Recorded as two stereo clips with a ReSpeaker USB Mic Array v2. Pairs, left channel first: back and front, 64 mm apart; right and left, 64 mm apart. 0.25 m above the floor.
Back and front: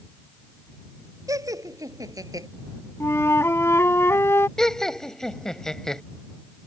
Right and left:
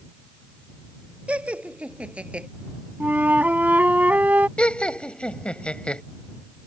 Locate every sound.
1.3 s laughter: 20° left; by 2.5 s 15° left
3.0 s a flute: 145° left
4.6 s laughter: 120° right